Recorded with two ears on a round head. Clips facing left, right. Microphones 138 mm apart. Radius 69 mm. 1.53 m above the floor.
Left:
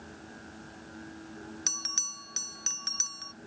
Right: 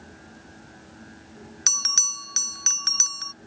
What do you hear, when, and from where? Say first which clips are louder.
1.7 s a bell: right 6 dB; 65° right (ahead or behind)